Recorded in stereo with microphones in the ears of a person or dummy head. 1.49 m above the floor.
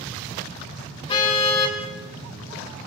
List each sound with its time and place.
1.1 s a car horn: 30° left (ahead or behind), 4 m